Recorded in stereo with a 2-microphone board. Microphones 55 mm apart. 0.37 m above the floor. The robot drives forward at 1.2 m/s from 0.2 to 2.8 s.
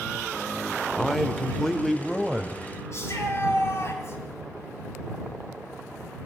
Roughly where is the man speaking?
Centre.